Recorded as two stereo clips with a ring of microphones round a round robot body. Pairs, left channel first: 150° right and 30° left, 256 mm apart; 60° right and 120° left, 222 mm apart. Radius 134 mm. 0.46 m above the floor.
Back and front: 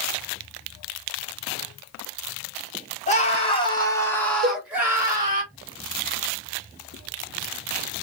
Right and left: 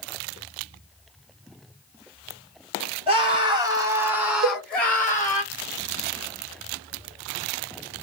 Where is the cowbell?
75° left, 0.6 m.